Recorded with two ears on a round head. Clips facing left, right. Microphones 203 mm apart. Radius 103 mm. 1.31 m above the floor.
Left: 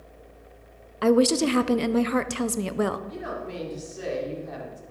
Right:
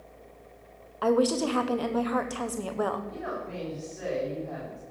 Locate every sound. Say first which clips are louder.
1.0 s a woman speaking: left 4 dB; 30° left (ahead or behind), 0.6 m
3.1 s a woman speaking: left 2 dB; 45° left (ahead or behind), 3.5 m